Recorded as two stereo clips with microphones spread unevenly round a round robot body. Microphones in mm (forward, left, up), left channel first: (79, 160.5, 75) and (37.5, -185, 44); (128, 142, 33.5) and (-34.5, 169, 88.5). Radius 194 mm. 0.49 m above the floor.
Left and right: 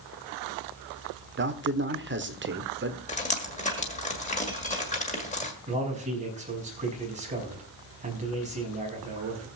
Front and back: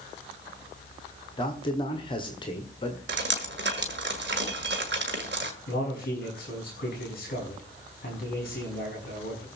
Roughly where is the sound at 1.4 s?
Ahead right.